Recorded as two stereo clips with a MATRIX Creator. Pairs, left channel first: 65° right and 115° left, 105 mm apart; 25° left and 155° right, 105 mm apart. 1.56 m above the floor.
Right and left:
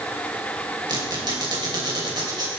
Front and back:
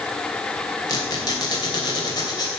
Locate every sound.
0.9 s a squeak: 70° left, 3 m